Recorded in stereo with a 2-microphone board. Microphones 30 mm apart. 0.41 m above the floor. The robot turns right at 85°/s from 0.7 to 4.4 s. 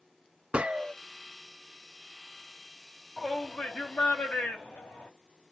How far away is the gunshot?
About 0.6 m.